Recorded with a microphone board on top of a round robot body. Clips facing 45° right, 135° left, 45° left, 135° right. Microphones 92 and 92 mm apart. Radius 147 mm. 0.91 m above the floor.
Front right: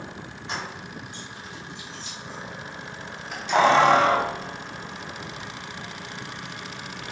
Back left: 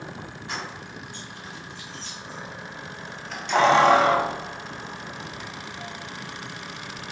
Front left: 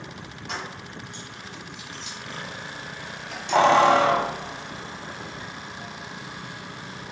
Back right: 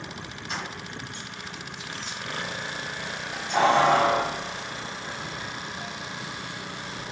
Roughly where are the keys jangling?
Ahead left.